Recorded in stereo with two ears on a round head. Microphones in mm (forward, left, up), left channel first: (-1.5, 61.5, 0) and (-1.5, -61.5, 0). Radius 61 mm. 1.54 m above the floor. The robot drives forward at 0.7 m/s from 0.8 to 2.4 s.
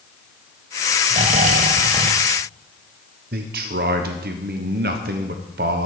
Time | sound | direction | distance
1.1 | snoring | 45° right (ahead or behind) | 0.6 m
3.3 | a man speaking | 75° right (ahead or behind) | 1.0 m